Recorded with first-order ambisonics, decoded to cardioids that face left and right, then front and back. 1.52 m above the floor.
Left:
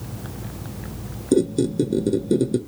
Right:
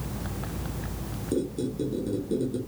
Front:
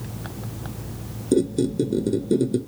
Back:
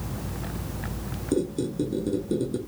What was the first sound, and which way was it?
A squeak, 60° left.